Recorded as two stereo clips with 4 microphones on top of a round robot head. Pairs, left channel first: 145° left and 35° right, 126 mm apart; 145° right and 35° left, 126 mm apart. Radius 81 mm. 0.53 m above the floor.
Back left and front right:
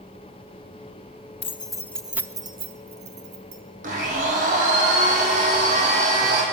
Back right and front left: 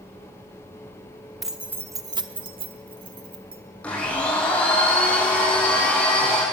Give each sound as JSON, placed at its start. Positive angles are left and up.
{"t": 1.4, "sound": "keys jangling", "azimuth_deg": 120, "distance_m": 1.0}
{"t": 3.8, "sound": "a blender", "azimuth_deg": -65, "distance_m": 4.5}